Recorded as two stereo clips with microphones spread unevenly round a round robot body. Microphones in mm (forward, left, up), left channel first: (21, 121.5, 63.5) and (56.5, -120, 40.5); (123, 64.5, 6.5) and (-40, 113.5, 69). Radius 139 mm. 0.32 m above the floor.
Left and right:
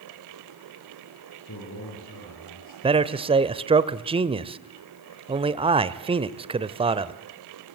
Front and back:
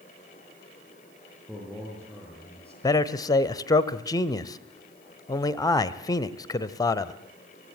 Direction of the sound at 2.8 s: 30° right.